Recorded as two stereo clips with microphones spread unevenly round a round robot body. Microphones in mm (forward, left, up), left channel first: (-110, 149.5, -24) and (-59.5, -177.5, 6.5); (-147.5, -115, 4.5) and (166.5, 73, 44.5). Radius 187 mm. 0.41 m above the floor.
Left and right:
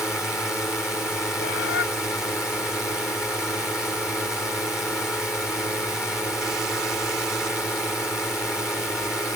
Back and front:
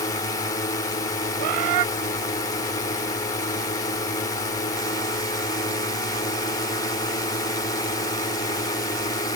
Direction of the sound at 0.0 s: Straight behind.